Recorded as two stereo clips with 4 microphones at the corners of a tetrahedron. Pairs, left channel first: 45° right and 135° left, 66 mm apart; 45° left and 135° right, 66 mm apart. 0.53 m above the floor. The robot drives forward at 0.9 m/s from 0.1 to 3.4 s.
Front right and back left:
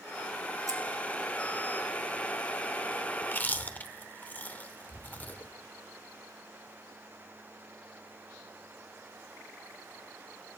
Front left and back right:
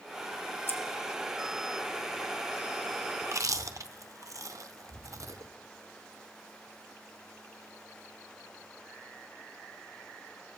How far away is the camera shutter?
I don't hear a camera shutter.